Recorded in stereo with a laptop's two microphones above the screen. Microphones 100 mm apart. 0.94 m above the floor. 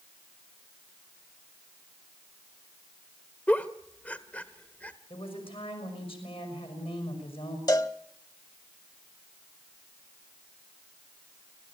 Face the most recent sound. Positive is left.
turn(degrees=40)  # may be behind; listen again after turning